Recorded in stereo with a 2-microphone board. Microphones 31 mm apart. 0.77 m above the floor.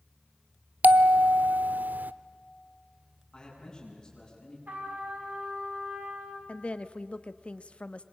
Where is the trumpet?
75° right (ahead or behind), 5 m.